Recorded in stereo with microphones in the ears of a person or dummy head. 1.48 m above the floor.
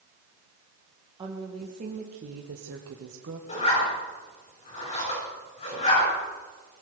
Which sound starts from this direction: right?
A woman speaking, at 1.2 s.